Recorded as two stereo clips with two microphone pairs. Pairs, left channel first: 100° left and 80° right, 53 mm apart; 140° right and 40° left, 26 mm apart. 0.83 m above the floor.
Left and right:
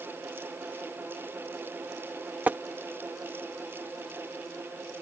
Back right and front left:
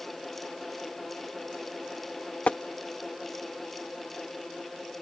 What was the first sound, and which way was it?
Tapping, 130° right.